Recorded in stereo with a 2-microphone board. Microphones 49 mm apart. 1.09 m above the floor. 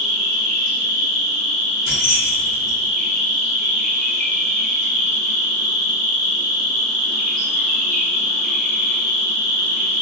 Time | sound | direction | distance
0.0 | an insect | 10° left (ahead or behind) | 2.0 m
1.9 | keys jangling | 10° right (ahead or behind) | 1.8 m